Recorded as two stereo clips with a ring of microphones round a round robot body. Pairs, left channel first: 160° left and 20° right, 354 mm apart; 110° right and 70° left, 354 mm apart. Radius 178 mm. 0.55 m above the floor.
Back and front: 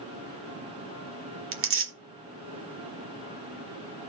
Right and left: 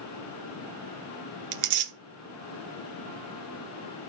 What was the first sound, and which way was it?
Tearing paper, 30° left.